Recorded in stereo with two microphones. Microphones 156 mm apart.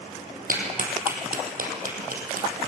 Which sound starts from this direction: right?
A clap, at 0.5 s.